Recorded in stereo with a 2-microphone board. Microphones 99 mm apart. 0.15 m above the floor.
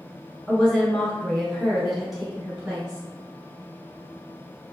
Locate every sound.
0.5 s a woman speaking: 10° left (ahead or behind), 1.6 m; by 3.0 s 10° right (ahead or behind), 1.6 m